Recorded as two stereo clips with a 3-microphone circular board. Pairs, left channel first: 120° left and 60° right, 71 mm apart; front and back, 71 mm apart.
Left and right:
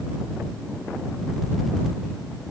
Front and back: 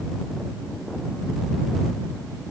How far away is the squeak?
I don't hear a squeak.